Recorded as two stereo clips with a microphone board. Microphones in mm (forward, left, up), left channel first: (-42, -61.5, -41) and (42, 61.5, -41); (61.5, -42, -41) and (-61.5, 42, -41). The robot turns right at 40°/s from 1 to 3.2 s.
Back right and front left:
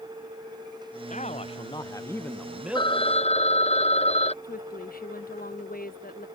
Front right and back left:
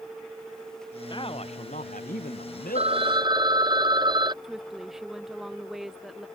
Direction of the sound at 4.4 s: 125° right.